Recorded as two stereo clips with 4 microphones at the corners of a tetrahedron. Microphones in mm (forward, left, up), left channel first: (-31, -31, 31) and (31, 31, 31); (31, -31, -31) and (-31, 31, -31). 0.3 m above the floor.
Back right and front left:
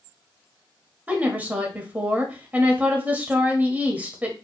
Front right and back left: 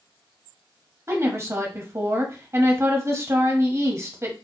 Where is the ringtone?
No ringtone in this recording.